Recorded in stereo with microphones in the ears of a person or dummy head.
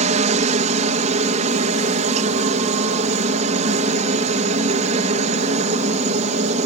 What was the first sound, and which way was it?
A helicopter, 35° right (ahead or behind).